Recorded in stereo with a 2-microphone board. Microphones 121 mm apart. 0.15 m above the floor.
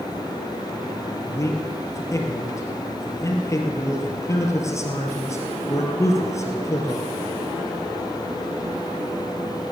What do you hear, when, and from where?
1.3 s a man speaking: 25° left (ahead or behind), 2.5 m